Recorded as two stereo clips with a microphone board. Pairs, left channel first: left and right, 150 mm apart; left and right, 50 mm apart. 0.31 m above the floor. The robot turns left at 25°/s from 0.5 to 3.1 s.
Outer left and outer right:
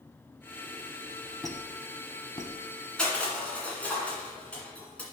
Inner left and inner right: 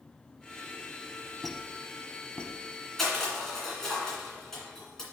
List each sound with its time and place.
1.4 s a squeak: centre (ahead or behind), 0.8 m; by 2.6 s 25° left (ahead or behind), 0.8 m
3.0 s crushing: 5° left (ahead or behind), 2.0 m; by 5.0 s 10° left (ahead or behind), 2.0 m